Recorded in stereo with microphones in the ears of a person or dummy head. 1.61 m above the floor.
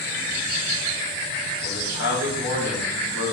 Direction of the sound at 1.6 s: 65° left (ahead or behind).